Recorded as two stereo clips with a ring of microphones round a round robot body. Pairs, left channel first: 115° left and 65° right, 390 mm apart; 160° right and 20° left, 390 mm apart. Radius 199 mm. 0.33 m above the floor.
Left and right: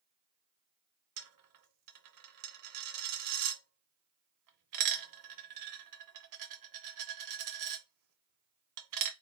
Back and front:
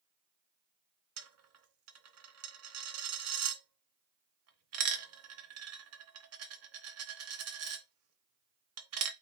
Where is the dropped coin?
30° right, 0.8 m.